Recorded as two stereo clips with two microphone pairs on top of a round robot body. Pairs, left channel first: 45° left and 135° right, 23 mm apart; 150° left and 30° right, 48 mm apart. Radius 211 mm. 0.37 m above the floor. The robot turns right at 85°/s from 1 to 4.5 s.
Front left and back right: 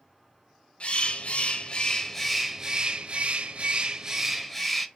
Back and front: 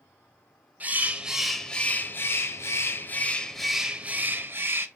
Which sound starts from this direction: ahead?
A bird, at 0.8 s.